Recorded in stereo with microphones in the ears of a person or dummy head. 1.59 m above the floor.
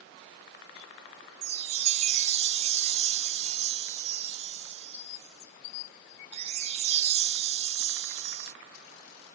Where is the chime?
45° right (ahead or behind), 0.6 m.